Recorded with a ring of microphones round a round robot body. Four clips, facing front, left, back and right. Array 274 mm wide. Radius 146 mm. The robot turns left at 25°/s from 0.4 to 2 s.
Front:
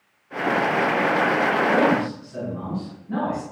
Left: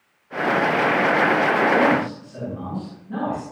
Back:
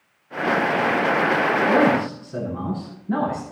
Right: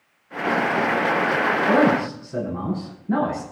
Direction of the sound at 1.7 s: 115° right.